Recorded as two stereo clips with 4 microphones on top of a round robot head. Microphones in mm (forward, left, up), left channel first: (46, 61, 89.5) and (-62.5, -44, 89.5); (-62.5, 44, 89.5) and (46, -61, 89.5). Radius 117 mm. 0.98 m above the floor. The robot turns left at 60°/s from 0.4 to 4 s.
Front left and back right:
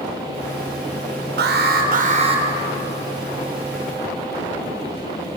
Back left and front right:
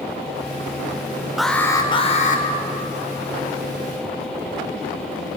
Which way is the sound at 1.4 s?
130° right.